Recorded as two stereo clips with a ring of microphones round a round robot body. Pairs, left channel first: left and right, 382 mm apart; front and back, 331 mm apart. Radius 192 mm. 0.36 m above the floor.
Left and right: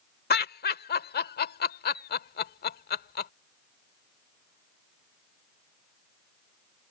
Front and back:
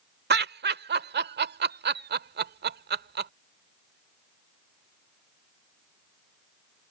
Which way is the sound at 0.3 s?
140° left.